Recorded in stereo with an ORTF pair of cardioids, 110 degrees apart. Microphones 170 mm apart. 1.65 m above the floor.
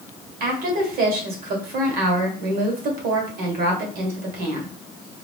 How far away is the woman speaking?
About 1.6 m.